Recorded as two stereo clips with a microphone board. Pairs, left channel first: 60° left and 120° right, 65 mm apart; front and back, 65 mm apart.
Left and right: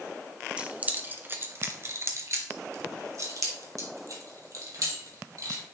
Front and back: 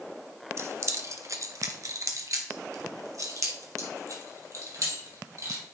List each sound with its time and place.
0.6 s keys jangling: 175° left, 1.0 m; by 5.6 s 145° right, 3.5 m